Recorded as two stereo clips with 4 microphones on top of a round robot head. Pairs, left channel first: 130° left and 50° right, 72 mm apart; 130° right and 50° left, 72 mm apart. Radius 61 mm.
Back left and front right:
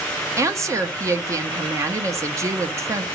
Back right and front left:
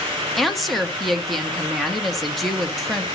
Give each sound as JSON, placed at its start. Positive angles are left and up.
{"t": 0.4, "sound": "a woman speaking", "azimuth_deg": -40, "distance_m": 1.0}